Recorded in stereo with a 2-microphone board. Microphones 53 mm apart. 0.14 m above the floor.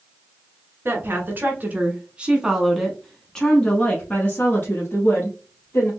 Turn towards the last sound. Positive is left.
turn(degrees=45)  # may be behind; listen again after turning